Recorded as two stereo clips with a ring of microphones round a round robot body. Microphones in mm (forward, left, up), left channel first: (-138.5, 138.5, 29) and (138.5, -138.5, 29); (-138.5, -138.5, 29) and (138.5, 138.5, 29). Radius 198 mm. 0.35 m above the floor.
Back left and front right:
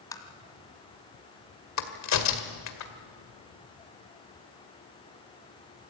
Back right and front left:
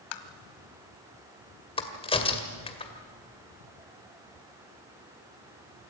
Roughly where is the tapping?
Behind right.